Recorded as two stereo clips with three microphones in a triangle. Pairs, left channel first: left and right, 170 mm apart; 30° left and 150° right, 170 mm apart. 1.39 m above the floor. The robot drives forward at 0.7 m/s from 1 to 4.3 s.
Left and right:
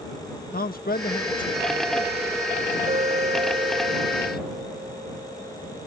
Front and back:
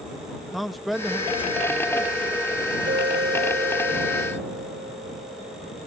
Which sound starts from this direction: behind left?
A man speaking, at 0.5 s.